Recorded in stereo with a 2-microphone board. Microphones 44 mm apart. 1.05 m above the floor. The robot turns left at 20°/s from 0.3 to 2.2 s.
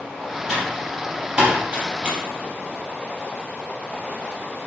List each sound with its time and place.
0.5 s typing on a keyboard: 5° right (ahead or behind), 5 m; by 2.2 s 35° right (ahead or behind), 5 m